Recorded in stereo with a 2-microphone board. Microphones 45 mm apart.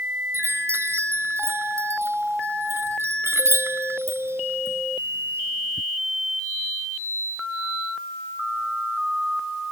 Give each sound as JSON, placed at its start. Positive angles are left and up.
{"t": 0.3, "sound": "a chime", "side_deg": -75}